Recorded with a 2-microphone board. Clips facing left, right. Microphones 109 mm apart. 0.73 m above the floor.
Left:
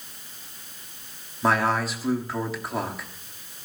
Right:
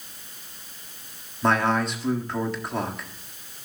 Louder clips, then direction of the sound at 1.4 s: Right 1 dB; centre (ahead or behind).